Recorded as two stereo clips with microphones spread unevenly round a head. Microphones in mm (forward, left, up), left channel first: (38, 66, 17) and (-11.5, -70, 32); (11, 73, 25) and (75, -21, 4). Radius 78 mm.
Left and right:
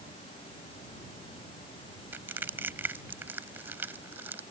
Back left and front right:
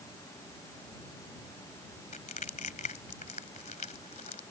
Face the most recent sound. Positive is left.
turn(degrees=175)